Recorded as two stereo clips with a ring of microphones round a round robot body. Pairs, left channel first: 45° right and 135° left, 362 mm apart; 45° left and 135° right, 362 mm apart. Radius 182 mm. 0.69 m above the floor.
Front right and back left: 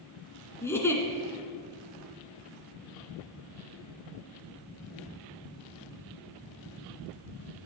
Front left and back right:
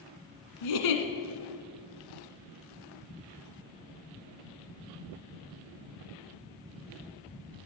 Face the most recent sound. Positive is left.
turn(degrees=40)